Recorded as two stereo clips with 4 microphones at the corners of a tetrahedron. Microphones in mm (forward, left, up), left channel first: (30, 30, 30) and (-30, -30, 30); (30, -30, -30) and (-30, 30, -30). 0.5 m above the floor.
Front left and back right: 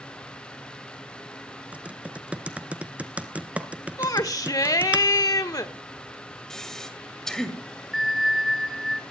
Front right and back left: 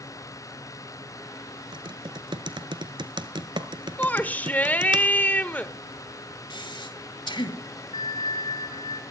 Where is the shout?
20° left, 1.4 m.